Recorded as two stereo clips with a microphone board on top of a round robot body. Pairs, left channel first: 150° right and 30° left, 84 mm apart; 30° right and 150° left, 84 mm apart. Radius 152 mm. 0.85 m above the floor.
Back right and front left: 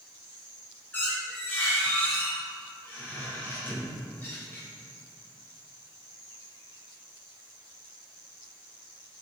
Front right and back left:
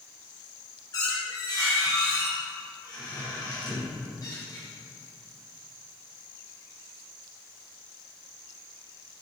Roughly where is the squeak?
Right.